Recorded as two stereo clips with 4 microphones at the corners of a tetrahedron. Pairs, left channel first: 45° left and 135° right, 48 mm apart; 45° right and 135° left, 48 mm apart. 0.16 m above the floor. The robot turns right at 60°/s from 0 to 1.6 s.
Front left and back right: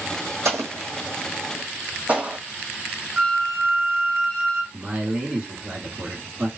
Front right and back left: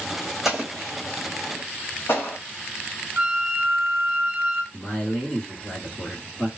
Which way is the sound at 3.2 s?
165° left.